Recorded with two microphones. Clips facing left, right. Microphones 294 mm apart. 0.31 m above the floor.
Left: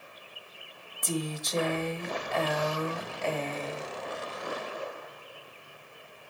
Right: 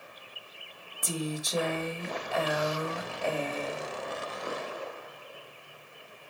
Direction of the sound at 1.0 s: 10° right (ahead or behind).